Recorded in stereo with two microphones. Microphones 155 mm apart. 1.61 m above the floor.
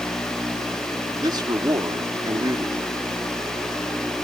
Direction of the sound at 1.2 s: 25° right (ahead or behind).